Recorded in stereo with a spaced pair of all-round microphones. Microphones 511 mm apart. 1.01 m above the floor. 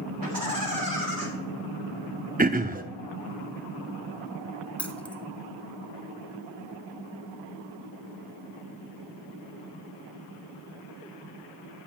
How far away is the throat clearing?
About 0.6 m.